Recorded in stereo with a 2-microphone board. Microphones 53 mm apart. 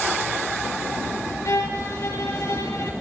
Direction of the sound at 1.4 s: 70° left (ahead or behind).